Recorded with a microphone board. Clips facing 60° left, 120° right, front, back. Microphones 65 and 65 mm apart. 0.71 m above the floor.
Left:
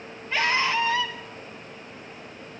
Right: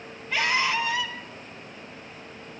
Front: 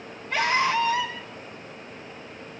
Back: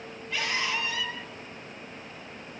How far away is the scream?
About 5 m.